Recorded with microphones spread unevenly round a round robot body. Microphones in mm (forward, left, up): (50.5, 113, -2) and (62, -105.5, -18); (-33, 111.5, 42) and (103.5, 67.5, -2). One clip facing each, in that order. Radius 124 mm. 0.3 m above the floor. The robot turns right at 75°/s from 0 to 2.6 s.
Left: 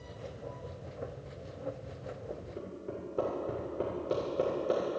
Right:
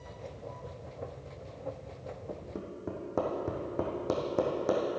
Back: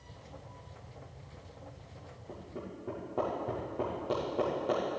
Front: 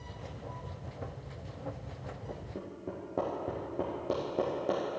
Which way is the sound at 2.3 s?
110° right.